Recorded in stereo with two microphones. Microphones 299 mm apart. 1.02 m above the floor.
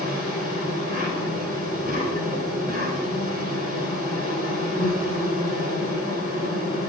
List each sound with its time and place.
0.0 s an insect: 25° right (ahead or behind), 2 m